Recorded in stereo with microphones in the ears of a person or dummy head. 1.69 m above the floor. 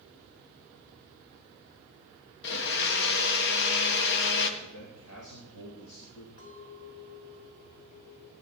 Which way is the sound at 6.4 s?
55° left (ahead or behind).